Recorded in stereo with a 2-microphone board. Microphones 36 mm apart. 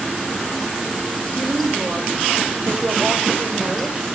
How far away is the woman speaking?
About 3.5 m.